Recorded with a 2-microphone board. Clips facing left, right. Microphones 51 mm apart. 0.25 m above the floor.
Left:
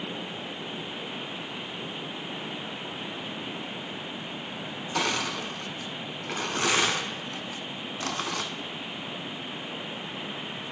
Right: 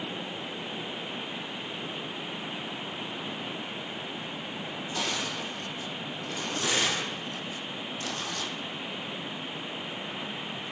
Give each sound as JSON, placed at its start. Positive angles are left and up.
{"t": 5.0, "sound": "crushing", "side_deg": 75, "distance_m": 0.7}